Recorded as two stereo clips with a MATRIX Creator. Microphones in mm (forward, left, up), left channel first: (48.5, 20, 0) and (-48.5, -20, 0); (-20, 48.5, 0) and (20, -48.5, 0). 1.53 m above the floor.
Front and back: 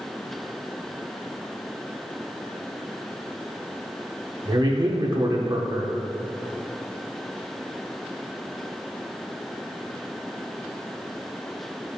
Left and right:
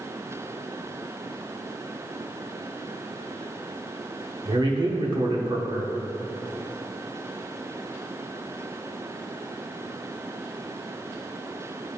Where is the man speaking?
110° right, 1.2 m.